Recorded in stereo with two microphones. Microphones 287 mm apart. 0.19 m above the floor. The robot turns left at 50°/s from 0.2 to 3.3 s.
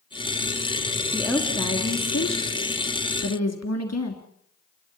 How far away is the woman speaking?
About 3 m.